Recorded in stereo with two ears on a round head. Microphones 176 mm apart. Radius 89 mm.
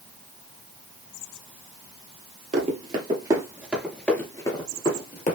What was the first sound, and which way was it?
Running footsteps, 35° right (ahead or behind).